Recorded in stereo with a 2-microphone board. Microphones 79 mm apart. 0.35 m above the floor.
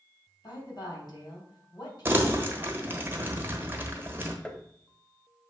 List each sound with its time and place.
0.4 s a woman speaking: 65° left (ahead or behind), 3 m
2.0 s crumpling: 25° right (ahead or behind), 1.2 m
4.5 s tapping: 10° left (ahead or behind), 0.5 m